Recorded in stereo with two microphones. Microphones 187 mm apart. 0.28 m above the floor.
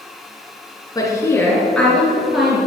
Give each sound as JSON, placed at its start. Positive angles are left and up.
{"t": 0.9, "sound": "a woman speaking", "side_deg": 20, "distance_m": 3.0}